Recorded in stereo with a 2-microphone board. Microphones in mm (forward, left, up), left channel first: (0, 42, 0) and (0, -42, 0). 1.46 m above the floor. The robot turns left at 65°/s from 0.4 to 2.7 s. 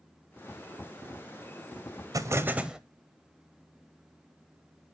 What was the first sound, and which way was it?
An explosion, 135° right.